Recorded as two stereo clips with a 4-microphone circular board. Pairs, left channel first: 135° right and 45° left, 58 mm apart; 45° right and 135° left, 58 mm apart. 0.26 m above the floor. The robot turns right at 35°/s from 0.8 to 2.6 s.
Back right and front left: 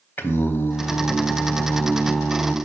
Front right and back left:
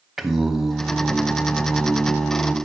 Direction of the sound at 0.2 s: 145° right.